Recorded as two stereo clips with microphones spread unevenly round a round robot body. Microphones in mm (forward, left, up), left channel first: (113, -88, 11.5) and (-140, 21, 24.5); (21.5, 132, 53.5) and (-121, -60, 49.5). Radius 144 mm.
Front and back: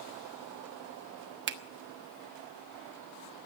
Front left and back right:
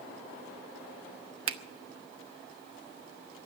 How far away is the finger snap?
About 1.2 m.